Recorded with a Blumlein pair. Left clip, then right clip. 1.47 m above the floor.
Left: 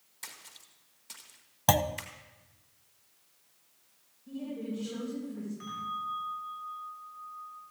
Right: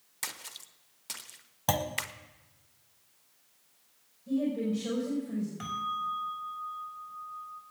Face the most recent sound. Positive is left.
turn(degrees=-55)